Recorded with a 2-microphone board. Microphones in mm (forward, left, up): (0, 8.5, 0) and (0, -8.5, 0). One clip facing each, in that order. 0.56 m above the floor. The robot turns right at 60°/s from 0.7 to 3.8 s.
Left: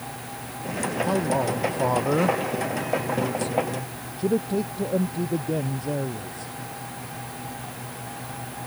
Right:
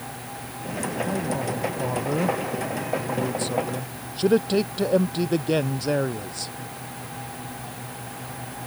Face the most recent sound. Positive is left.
turn(degrees=-120)